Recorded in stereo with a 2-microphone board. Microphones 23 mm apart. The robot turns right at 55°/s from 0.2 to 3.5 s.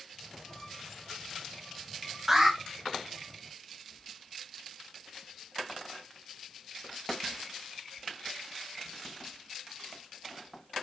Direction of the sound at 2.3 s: 25° right (ahead or behind).